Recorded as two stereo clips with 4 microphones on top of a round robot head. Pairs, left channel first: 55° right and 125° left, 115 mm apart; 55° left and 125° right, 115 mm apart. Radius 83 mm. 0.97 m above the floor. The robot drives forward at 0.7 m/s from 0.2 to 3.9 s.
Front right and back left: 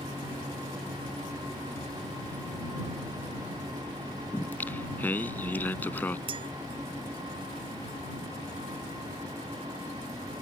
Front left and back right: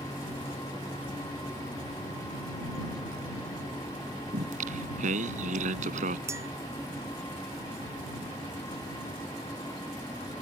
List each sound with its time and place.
4.3 s singing: 130° right
6.3 s a clink: 170° left